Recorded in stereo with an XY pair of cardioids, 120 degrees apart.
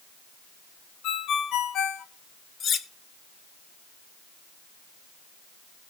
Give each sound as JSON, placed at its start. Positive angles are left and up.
{"t": 1.0, "sound": "a ringtone", "azimuth_deg": 70, "distance_m": 1.2}
{"t": 2.6, "sound": "cutlery clinking", "azimuth_deg": 50, "distance_m": 1.1}